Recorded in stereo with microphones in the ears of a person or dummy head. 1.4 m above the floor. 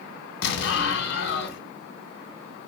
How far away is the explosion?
About 0.8 m.